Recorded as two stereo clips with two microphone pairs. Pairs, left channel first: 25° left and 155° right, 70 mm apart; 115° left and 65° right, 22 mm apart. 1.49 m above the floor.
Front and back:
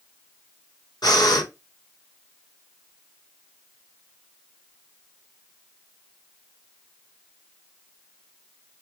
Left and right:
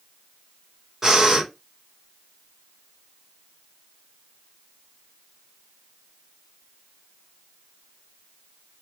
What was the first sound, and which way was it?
Breathing, 10° left.